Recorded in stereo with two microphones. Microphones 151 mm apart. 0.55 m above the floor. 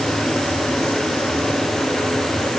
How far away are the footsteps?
No footsteps in this recording.